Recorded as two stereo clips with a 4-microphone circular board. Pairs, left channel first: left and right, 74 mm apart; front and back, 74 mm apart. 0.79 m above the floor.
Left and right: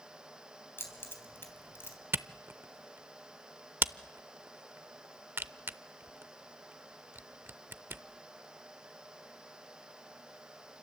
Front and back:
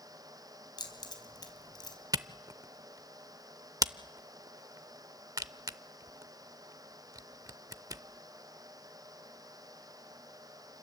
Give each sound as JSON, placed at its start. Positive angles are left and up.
{"t": 0.8, "sound": "keys jangling", "azimuth_deg": 30, "distance_m": 3.5}
{"t": 2.1, "sound": "a camera shutter", "azimuth_deg": -145, "distance_m": 0.6}